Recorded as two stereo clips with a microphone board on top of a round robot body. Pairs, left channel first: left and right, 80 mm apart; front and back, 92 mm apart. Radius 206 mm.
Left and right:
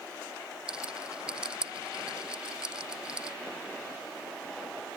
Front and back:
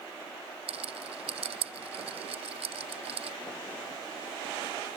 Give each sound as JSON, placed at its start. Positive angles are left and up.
{"t": 0.7, "sound": "a rattle", "azimuth_deg": -170}